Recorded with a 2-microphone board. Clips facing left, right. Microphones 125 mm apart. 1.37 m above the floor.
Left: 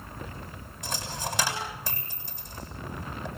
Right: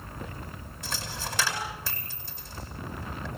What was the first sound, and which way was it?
A dropped coin, 15° left (ahead or behind).